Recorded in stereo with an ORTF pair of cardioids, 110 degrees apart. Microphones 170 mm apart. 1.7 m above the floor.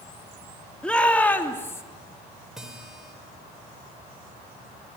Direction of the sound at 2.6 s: 5° right.